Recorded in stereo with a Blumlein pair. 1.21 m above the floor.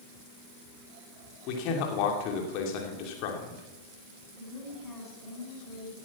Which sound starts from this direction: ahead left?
A man speaking, at 1.5 s.